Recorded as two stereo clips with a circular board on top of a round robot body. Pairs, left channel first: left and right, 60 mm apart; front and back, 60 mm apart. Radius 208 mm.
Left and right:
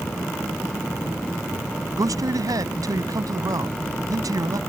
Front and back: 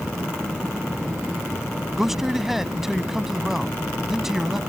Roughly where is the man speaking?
Right.